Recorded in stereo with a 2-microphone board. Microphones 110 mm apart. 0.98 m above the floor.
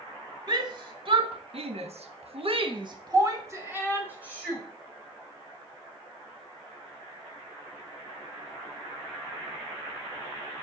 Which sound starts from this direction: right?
A shout, at 0.5 s.